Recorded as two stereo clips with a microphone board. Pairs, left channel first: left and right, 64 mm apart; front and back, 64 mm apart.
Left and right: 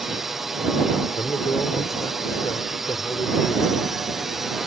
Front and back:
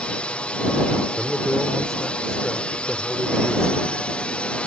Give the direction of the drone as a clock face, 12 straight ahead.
12 o'clock.